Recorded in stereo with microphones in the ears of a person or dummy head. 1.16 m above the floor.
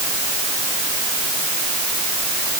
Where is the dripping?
No dripping in this recording.